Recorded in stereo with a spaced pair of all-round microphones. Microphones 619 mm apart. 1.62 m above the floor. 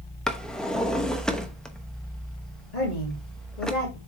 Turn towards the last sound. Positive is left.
turn(degrees=85)